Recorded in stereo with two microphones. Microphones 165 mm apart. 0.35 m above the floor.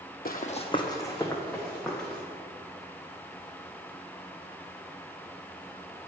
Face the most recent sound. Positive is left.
turn(degrees=5)  # may be behind; listen again after turning